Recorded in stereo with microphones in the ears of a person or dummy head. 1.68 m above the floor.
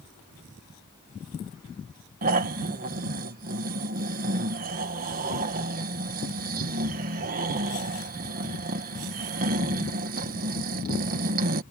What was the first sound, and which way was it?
Snoring, 45° right (ahead or behind).